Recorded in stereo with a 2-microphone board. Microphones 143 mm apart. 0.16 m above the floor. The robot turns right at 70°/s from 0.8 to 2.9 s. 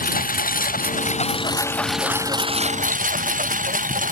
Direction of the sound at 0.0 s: 100° left.